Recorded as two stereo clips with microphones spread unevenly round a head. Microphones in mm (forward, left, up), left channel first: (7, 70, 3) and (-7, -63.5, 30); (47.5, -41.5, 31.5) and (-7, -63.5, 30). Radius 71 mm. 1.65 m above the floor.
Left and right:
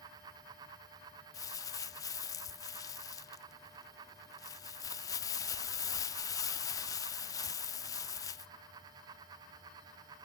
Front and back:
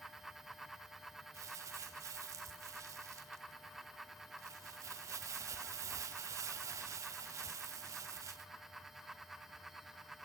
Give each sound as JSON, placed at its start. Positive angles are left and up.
{"t": 1.3, "sound": "crumpling", "azimuth_deg": 150, "distance_m": 0.6}